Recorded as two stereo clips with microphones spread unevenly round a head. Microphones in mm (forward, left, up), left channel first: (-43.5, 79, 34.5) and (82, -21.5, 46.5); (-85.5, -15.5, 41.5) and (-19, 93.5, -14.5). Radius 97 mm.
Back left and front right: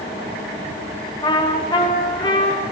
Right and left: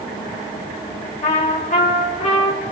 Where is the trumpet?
150° right, 4.5 m.